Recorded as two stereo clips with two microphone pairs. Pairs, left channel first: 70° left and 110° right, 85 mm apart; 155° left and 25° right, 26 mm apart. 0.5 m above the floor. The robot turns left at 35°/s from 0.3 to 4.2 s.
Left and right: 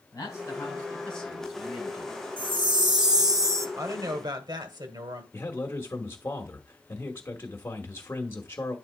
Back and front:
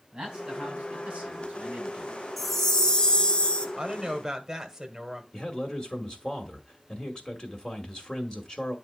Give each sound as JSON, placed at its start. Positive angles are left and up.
{"t": 0.1, "sound": "a man speaking", "azimuth_deg": 20, "distance_m": 3.5}
{"t": 2.4, "sound": "a chime", "azimuth_deg": -115, "distance_m": 0.9}
{"t": 3.8, "sound": "a woman speaking", "azimuth_deg": -75, "distance_m": 1.5}
{"t": 5.3, "sound": "a man speaking", "azimuth_deg": 120, "distance_m": 1.2}